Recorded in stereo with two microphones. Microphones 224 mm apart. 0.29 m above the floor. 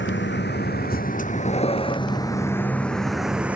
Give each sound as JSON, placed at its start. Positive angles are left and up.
{"t": 0.0, "sound": "a vehicle", "side_deg": 55}